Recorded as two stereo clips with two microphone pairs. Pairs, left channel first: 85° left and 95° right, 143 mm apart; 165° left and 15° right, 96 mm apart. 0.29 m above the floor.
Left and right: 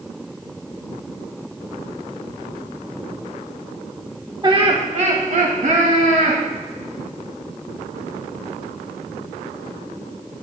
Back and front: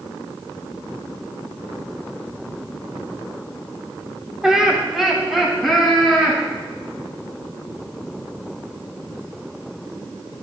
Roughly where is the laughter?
Right.